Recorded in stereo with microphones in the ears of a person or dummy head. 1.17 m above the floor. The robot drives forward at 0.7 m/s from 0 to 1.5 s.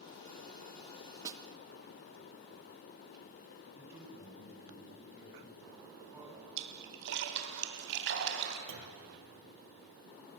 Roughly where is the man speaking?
Centre.